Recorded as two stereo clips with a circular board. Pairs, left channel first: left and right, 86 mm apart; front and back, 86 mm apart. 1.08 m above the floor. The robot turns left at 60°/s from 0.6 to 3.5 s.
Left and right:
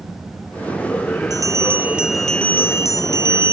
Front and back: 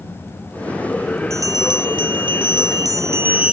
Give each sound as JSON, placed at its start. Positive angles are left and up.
{"t": 1.3, "sound": "a bell", "azimuth_deg": -125}